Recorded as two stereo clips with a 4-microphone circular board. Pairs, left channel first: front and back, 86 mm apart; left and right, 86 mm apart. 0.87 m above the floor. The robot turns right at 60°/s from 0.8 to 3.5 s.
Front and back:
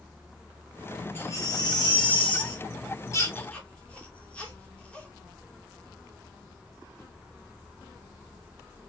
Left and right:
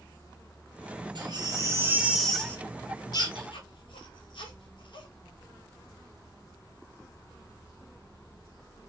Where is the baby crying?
65° right, 1.2 m; by 5.1 s 75° left, 1.2 m.